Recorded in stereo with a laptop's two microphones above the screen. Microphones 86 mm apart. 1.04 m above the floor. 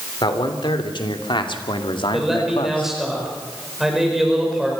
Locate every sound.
0.2 s a man speaking: 70° left (ahead or behind), 3 m; by 2.9 s 75° left (ahead or behind), 1.6 m
2.1 s a man speaking: 5° right (ahead or behind), 5 m